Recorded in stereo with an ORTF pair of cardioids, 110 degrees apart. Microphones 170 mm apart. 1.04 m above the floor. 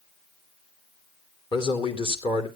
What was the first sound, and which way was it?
A man speaking, 30° left.